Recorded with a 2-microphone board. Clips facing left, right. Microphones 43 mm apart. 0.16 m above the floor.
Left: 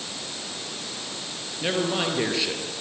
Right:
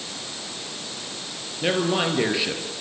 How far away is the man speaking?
About 3.5 m.